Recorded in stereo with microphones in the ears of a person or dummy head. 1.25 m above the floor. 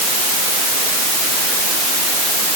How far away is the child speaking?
I don't hear a child speaking.